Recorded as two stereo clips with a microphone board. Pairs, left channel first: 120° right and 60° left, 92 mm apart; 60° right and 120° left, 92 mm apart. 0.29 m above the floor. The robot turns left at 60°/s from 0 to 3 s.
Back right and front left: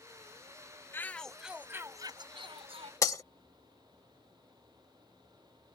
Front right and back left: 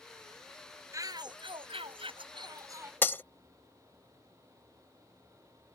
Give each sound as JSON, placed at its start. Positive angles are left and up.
{"t": 0.9, "sound": "a shout", "azimuth_deg": 175}
{"t": 3.0, "sound": "breaking glass", "azimuth_deg": -110}